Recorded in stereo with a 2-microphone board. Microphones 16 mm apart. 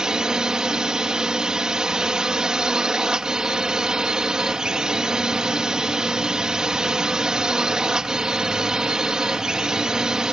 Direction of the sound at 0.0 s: 45° right (ahead or behind).